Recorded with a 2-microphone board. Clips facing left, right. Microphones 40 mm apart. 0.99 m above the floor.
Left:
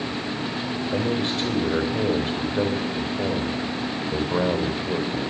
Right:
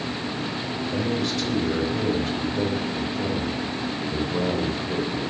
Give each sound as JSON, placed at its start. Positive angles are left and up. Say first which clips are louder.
{"t": 0.9, "sound": "a man speaking", "louder": "left 1 dB", "side_deg": 35, "distance_m": 3.0}